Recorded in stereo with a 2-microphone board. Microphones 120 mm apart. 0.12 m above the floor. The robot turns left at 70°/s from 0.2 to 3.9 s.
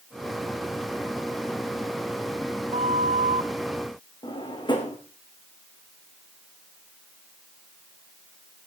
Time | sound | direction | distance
2.7 | a flute | 60° right | 0.6 m
4.2 | a drawer | 40° left (ahead or behind) | 4 m